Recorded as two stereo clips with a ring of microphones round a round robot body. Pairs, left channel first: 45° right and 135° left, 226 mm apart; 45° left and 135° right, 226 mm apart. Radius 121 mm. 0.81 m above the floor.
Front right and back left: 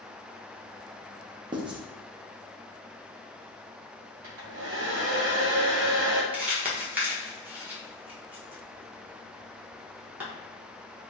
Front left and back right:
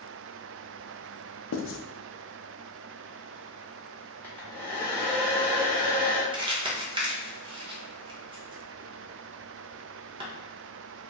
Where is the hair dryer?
125° left, 1.1 m.